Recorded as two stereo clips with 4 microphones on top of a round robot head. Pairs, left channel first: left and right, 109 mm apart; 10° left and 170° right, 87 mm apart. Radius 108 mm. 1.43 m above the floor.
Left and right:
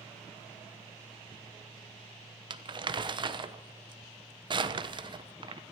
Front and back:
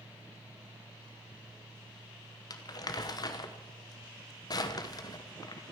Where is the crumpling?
45° right, 1.1 m.